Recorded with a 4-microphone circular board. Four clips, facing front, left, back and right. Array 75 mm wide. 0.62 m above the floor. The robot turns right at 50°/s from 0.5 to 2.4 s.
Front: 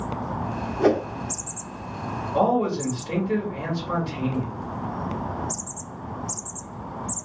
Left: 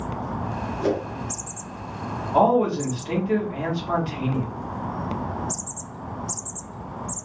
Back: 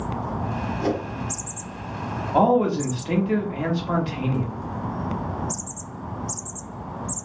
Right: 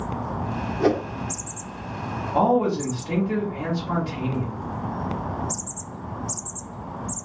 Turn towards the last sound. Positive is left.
turn(degrees=160)